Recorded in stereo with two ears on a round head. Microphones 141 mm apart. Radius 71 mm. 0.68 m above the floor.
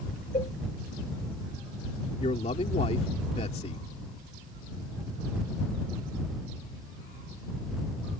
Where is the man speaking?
40° left (ahead or behind).